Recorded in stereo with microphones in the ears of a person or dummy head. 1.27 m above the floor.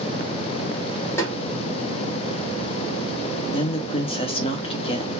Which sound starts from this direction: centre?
A snare drum, at 1.2 s.